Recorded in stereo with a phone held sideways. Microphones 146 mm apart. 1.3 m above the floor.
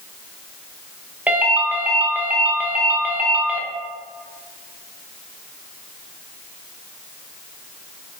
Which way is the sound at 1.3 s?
10° right (ahead or behind).